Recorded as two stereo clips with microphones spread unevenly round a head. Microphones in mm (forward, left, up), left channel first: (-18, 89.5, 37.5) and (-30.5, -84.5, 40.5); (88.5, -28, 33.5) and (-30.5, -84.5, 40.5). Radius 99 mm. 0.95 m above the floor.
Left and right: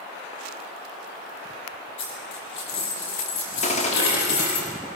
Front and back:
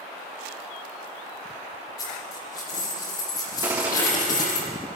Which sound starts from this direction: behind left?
A gunshot, at 3.6 s.